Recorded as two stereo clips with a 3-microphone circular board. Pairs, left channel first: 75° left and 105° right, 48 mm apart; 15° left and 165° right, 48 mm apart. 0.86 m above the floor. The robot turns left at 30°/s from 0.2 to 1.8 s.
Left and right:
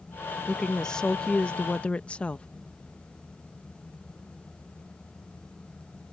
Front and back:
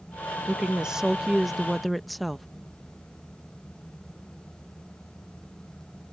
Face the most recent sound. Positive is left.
turn(degrees=100)